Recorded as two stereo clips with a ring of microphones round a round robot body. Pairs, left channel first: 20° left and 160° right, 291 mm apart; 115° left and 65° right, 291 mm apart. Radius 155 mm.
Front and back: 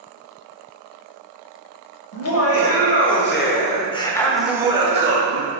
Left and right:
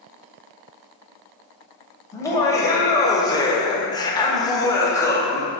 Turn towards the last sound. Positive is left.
turn(degrees=-170)